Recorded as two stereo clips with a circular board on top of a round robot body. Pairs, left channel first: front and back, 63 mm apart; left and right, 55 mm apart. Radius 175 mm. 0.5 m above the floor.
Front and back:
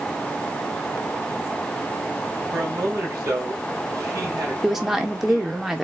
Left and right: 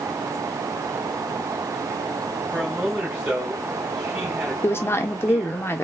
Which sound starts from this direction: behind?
A man speaking, at 2.5 s.